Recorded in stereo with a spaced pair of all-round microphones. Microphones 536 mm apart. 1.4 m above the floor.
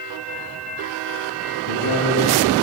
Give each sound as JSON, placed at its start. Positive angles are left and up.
{"t": 1.6, "sound": "a man speaking", "side_deg": -55, "distance_m": 6.5}